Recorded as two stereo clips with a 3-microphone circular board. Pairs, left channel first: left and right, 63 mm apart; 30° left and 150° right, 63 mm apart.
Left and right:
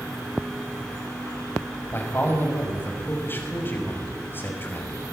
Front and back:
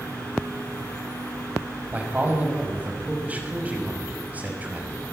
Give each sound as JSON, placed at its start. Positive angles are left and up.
{"t": 1.9, "sound": "a man speaking", "azimuth_deg": 145, "distance_m": 6.0}